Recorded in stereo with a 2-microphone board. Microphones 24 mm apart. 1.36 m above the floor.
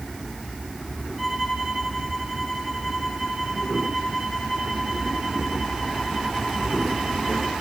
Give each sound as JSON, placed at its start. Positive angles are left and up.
{"t": 1.2, "sound": "a violin", "side_deg": -5, "distance_m": 7.5}